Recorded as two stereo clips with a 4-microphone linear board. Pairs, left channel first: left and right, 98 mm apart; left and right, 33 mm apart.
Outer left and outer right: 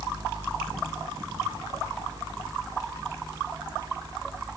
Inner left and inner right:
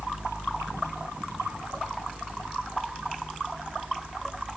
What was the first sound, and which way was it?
Only background noise.